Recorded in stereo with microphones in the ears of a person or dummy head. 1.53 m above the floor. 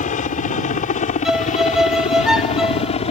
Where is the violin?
5° right (ahead or behind).